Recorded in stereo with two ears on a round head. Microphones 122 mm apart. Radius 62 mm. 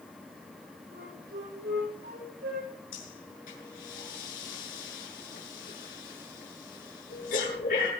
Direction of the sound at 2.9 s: 75° left (ahead or behind).